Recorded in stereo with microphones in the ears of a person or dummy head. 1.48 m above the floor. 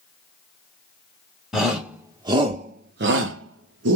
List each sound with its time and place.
1.5 s a shout: 5° right (ahead or behind), 0.9 m; by 4.0 s 70° right (ahead or behind), 0.8 m